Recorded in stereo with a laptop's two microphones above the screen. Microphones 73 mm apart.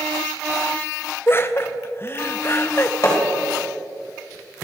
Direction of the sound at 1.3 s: 35° left (ahead or behind).